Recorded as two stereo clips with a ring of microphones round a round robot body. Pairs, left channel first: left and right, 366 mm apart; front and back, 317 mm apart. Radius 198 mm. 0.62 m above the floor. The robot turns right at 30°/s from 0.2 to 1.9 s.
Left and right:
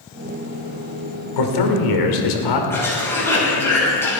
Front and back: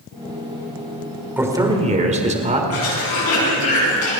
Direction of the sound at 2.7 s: 5° left.